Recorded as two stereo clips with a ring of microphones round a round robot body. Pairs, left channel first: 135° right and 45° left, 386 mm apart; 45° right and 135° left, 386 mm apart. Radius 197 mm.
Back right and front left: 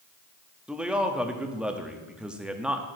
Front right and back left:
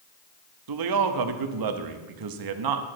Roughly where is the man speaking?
Behind left.